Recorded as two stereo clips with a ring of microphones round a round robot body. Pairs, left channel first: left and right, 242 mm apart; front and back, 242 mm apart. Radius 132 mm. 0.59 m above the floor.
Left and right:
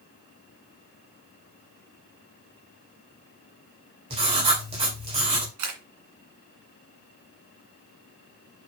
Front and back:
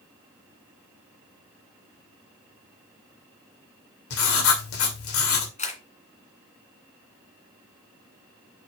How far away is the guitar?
No guitar in this recording.